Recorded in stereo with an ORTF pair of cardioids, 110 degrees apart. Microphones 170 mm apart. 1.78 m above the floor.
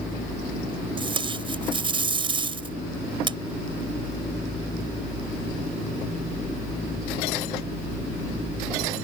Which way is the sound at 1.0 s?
30° right.